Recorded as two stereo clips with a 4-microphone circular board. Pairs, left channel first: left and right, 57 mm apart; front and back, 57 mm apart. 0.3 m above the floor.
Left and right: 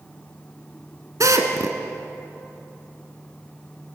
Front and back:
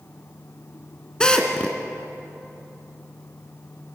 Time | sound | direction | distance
1.2 | a drill | 75° right | 1.9 m